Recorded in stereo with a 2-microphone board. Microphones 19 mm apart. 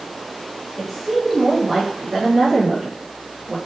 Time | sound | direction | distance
0.8 | a woman speaking | 5° right (ahead or behind) | 0.8 m